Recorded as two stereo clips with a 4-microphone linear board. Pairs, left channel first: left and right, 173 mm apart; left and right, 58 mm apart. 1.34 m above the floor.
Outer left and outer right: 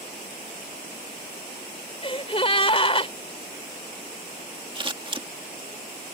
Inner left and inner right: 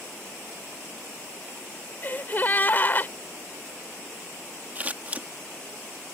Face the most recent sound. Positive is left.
turn(degrees=-30)  # may be behind; listen again after turning